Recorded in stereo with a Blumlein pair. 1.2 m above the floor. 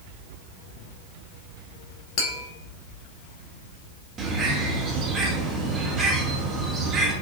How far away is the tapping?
About 1.0 m.